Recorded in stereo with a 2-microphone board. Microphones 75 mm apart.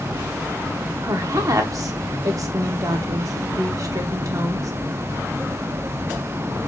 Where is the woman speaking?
50° right (ahead or behind), 0.7 m.